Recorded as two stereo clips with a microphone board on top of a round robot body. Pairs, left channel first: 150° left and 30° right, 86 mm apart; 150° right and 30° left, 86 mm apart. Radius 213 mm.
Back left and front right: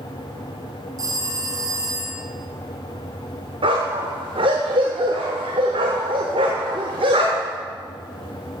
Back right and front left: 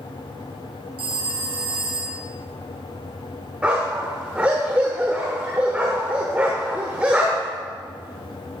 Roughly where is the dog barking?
Ahead right.